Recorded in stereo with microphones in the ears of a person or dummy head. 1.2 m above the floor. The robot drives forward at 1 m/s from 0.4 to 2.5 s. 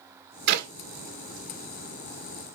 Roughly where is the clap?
Right.